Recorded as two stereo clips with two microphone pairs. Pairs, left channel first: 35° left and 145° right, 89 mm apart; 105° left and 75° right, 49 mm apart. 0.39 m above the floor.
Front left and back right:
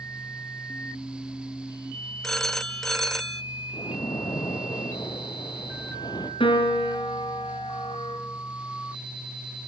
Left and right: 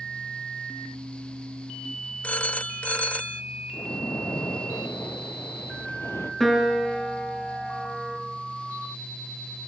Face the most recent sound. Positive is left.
turn(degrees=20)